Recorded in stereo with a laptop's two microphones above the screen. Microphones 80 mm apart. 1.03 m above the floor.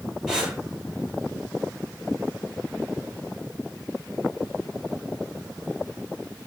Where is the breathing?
10° right (ahead or behind), 7.5 m.